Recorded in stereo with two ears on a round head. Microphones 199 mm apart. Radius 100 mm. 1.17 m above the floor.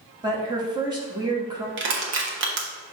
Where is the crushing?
55° right (ahead or behind), 1.2 m.